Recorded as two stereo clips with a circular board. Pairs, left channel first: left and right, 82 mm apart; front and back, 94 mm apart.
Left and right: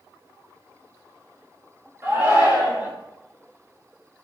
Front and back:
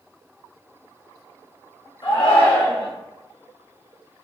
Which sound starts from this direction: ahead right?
A shout, at 2.0 s.